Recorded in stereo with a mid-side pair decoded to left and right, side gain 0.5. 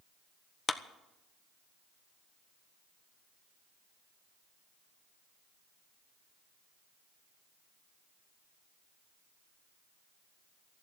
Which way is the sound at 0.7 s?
20° left.